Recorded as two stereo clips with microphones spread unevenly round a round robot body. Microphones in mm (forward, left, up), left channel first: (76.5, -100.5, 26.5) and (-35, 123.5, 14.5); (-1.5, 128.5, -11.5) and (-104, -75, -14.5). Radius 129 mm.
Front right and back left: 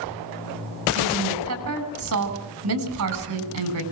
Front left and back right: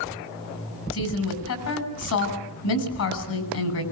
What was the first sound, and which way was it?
A woman speaking, 80° left.